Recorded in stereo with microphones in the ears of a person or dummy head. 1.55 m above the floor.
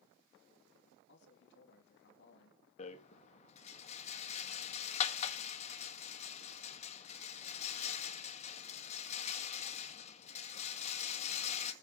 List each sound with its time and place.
1.1 s a man speaking: 60° left (ahead or behind), 2.5 m
2.8 s a rattle: 35° left (ahead or behind), 1.7 m